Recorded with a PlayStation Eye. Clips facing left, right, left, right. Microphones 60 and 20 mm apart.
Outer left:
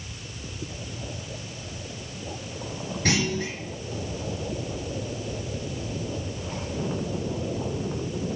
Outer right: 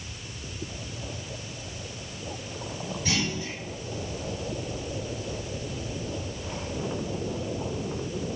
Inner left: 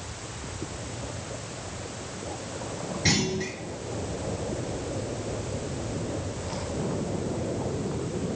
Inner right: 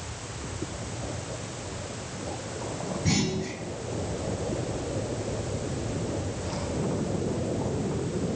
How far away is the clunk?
About 3.5 m.